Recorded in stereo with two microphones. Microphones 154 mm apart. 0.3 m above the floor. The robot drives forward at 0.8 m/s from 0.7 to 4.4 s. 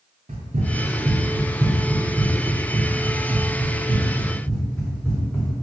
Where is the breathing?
I don't hear breathing.